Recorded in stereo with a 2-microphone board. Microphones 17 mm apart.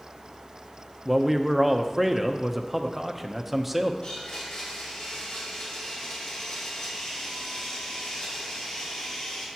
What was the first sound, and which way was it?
A man speaking, 15° right (ahead or behind).